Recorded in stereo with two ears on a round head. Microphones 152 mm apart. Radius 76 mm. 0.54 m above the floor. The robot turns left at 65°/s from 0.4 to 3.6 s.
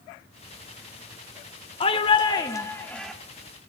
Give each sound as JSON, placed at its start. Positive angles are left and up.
{"t": 1.8, "sound": "a shout", "azimuth_deg": 90, "distance_m": 1.0}